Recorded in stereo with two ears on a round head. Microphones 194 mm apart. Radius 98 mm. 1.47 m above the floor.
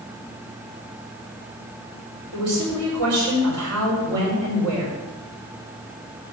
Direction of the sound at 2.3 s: 85° right.